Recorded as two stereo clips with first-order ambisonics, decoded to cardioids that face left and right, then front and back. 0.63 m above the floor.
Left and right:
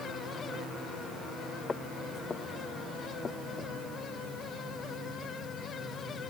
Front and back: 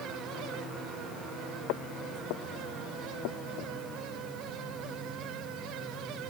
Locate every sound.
1.7 s footsteps: 15° left; by 3.7 s 20° left